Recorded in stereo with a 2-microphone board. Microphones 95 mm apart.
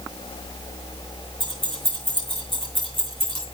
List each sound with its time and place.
1.4 s keys jangling: 65° right (ahead or behind), 6 m